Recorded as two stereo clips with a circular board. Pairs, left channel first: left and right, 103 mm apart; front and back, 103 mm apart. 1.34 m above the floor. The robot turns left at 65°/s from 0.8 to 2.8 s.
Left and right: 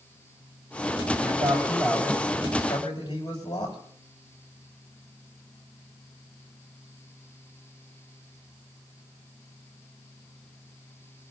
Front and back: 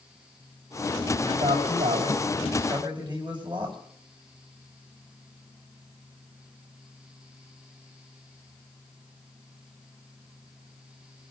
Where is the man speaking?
120° right, 7 m; by 3.8 s 135° left, 7 m.